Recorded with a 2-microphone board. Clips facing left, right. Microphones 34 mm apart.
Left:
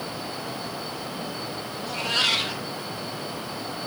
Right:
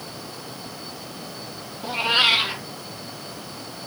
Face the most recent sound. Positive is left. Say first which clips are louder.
# right 5 dB
turn(degrees=-30)  # may be behind; listen again after turning